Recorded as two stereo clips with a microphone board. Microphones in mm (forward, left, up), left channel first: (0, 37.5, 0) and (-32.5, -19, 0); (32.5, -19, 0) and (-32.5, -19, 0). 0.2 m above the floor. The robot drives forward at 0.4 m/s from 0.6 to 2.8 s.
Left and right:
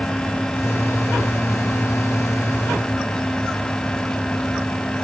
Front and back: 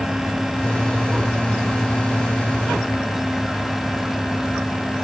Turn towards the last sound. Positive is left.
No sound to turn to.